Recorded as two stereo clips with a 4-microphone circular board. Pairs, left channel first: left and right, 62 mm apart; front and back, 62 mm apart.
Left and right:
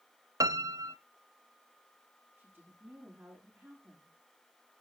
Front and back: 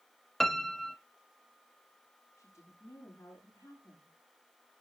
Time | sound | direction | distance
0.4 | a piano | 85° right | 0.8 m
2.4 | a woman speaking | 35° right | 9.5 m